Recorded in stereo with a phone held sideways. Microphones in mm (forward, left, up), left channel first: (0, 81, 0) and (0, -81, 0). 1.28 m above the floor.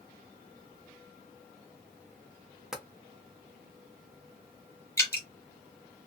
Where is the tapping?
5° right (ahead or behind), 0.5 m.